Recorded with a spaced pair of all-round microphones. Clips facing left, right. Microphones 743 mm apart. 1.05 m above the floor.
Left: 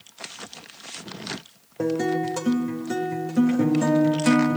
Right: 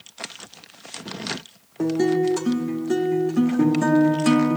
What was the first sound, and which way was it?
A guitar, 5° left (ahead or behind).